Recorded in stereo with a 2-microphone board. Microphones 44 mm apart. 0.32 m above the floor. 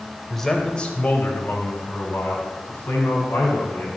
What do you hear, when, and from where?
0.3 s a man speaking: centre (ahead or behind), 1.2 m; by 4.0 s 65° left (ahead or behind), 3.5 m